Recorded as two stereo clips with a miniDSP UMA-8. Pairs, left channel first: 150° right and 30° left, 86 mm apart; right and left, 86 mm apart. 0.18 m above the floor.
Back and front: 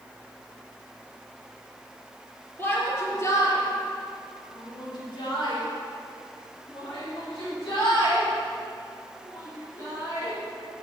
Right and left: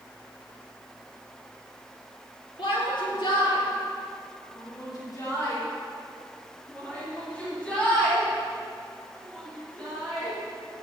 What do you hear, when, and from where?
2.6 s a shout: 90° right, 4.5 m; by 10.4 s straight behind, 10.5 m